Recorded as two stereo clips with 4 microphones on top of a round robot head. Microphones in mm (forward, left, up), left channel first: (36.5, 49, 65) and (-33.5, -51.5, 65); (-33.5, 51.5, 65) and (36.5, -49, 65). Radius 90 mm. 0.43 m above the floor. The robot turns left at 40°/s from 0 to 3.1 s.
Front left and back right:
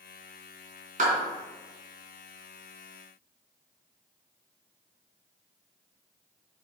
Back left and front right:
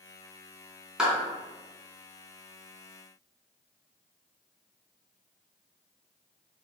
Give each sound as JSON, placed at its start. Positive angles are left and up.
{"t": 1.0, "sound": "a clap", "azimuth_deg": -140, "distance_m": 3.5}